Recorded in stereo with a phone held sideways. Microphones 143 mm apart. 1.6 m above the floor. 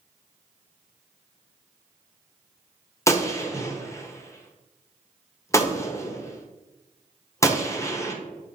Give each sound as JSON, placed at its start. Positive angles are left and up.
{"t": 3.1, "sound": "a gunshot", "side_deg": 20, "distance_m": 0.7}